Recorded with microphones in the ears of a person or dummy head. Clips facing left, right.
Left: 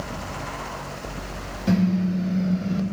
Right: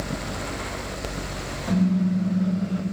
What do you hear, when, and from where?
1.7 s a car horn: 35° left (ahead or behind), 6.5 m; by 2.8 s 25° left (ahead or behind), 5 m